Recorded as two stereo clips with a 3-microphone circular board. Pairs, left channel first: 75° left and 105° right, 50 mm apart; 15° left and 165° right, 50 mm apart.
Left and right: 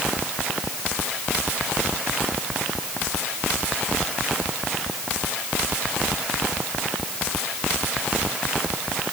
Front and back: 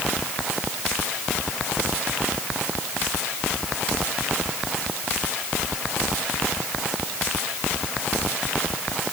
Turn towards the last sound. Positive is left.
No sound to turn to.